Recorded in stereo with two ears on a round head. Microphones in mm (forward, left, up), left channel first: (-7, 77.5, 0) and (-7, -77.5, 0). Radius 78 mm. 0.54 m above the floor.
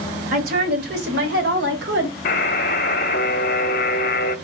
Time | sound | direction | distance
0.3 | a woman speaking | 55° right (ahead or behind) | 1.9 m
2.2 | a buzzer | 55° left (ahead or behind) | 0.7 m